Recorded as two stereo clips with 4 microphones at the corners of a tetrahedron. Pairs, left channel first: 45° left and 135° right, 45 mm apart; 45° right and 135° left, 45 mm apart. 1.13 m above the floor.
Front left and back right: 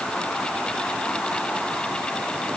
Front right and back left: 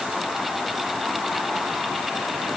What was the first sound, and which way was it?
Only background noise.